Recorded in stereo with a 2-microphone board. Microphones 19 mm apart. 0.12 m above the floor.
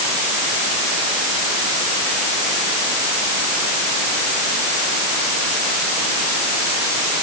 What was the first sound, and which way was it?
Only background noise.